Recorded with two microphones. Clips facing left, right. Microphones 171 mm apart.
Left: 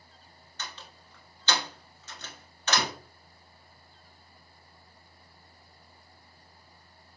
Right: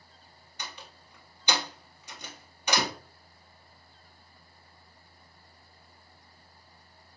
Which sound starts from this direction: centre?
A door slam, at 0.6 s.